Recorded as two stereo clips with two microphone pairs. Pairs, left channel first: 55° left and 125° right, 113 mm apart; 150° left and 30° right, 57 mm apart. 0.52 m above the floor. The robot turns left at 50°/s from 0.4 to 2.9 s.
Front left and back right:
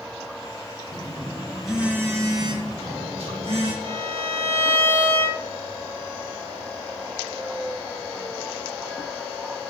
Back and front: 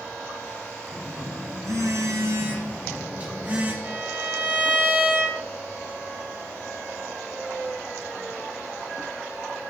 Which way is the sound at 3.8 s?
90° right.